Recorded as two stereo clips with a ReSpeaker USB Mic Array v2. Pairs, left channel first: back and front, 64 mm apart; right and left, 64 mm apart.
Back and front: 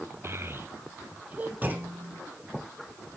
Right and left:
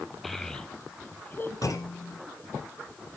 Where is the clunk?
60° right, 1.7 m.